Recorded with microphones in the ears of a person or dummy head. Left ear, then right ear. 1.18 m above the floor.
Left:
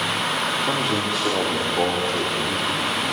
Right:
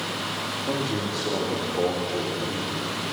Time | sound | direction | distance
0.6 | a man speaking | 60° left (ahead or behind) | 2.5 m